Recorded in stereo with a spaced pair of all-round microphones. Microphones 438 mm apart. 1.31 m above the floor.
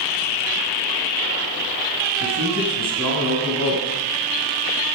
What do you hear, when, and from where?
2.2 s a man speaking: 30° right (ahead or behind), 8 m